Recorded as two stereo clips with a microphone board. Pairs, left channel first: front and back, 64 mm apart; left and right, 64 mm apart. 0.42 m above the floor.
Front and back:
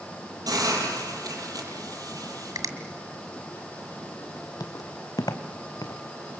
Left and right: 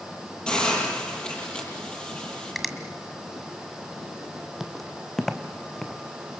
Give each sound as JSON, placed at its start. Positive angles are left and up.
{"t": 0.5, "sound": "a hiss", "azimuth_deg": 165, "distance_m": 8.5}
{"t": 2.5, "sound": "a finger snap", "azimuth_deg": 180, "distance_m": 2.0}
{"t": 4.6, "sound": "footsteps", "azimuth_deg": -5, "distance_m": 0.8}